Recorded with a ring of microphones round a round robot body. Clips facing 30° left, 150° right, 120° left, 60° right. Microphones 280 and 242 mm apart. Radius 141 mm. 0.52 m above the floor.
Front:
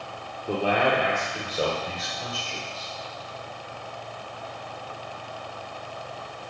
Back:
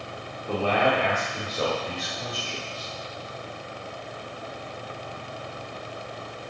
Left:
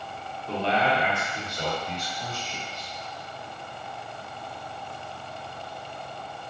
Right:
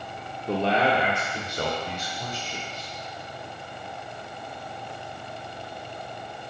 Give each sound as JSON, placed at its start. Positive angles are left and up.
{"t": 0.5, "sound": "a man speaking", "azimuth_deg": -35, "distance_m": 1.2}